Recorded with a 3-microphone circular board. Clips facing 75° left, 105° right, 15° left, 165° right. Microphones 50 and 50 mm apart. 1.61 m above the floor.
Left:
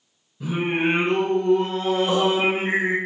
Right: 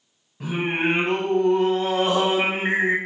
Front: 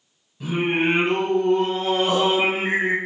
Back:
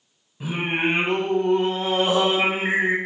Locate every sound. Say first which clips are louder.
0.4 s singing: left 1 dB, front 2 dB; 100° right, 2.5 m